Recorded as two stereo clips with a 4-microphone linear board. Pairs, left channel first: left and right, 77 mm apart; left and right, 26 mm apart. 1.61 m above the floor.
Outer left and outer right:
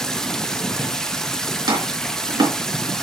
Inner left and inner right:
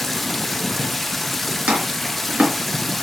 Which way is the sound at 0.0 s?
5° left (ahead or behind).